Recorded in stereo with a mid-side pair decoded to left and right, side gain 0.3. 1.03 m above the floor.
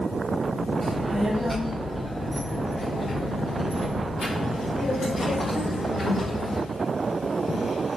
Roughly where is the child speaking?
Ahead right.